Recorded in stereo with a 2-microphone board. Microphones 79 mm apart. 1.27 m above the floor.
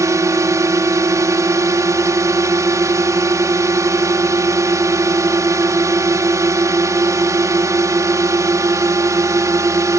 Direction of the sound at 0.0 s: 45° right (ahead or behind).